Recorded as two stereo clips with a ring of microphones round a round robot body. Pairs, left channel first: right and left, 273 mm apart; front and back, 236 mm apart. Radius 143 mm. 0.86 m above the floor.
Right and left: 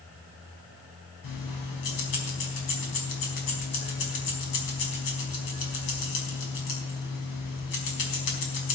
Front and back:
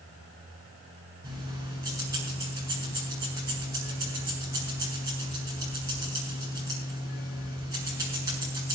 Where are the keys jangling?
100° right, 4.5 m.